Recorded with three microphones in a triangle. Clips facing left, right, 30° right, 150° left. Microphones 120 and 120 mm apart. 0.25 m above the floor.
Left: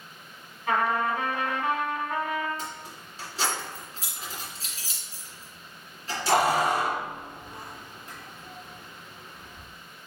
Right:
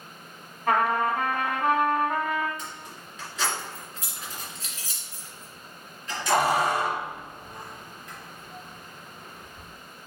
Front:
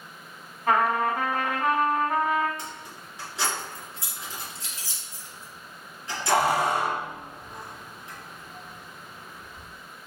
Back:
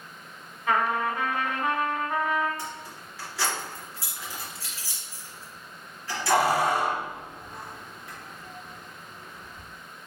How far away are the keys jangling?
About 1.9 m.